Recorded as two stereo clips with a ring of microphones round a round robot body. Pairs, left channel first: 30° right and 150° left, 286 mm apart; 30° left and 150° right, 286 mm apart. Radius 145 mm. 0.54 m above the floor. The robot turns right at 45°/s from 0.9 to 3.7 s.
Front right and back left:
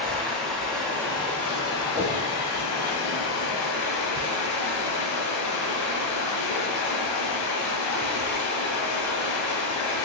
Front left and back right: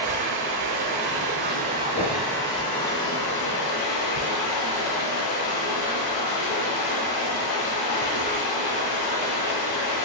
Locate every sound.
0.0 s running water: 120° right, 1.0 m; by 10.1 s 10° left, 1.0 m
1.9 s a whoosh: 75° left, 0.9 m; by 2.1 s 85° left, 0.9 m